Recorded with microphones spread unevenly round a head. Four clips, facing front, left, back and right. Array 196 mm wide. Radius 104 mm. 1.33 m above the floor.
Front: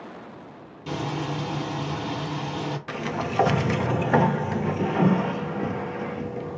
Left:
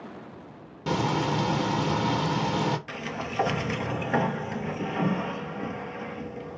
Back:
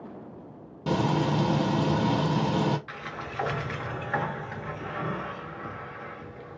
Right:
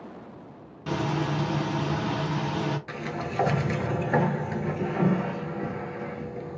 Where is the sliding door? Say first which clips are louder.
Right 1 dB, front 9 dB; 5° right, 0.5 m.